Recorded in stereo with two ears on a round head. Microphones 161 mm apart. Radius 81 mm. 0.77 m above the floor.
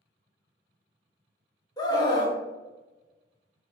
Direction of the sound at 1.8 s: 25° left (ahead or behind).